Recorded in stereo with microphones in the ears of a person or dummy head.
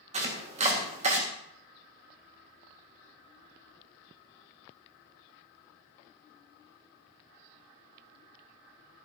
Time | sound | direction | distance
0.1 | chopping | 40° right (ahead or behind) | 1.6 m